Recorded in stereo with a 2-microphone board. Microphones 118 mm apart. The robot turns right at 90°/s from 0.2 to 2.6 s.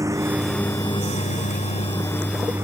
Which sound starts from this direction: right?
A lawn mower, at 0.0 s.